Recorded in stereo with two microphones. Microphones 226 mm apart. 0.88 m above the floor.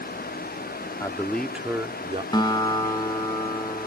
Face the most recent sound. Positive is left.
turn(degrees=20)  # may be behind; listen again after turning